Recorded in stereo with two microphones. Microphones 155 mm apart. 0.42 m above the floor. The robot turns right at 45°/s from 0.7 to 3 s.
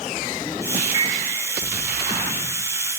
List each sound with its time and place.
0.8 s a microwave: 45° left (ahead or behind), 1.8 m; by 1.2 s 55° left (ahead or behind), 1.8 m